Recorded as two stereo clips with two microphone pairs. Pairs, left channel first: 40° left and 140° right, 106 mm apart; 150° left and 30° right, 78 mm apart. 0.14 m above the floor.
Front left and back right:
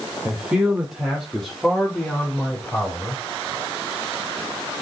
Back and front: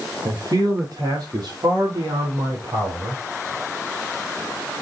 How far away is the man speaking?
About 5 m.